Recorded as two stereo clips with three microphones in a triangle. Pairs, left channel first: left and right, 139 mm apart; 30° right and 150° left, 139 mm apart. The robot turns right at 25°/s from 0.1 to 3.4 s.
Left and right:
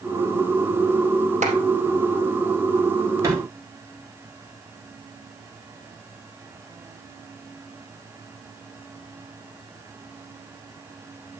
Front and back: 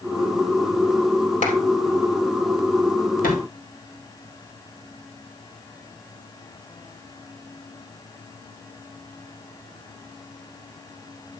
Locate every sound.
1.4 s a clap: 60° right, 3.5 m; by 1.6 s 55° right, 3.5 m
3.2 s a thud: 20° right, 3.5 m; by 3.4 s 15° right, 3.5 m